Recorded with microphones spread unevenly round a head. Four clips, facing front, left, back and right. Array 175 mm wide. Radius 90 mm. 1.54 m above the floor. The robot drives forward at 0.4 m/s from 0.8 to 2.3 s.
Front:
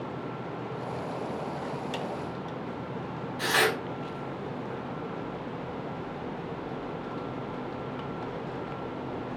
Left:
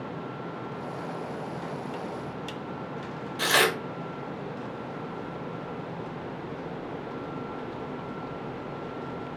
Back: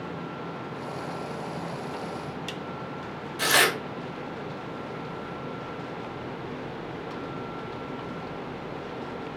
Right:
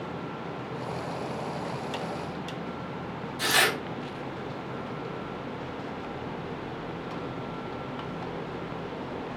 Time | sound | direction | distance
3.4 | tearing paper | 140° left | 2.5 m